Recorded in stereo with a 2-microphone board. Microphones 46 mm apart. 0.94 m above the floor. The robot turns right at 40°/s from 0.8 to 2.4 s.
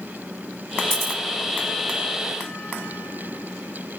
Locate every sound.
0.9 s a camera shutter: 30° right (ahead or behind), 3.5 m; by 1.2 s 40° right (ahead or behind), 3.5 m